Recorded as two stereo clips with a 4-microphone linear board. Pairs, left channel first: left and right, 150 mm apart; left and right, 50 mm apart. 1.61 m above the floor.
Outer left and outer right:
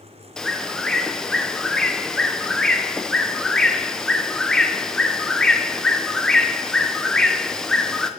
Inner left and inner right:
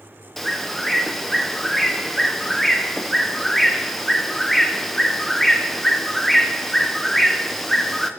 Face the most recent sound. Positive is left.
turn(degrees=5)  # may be behind; listen again after turning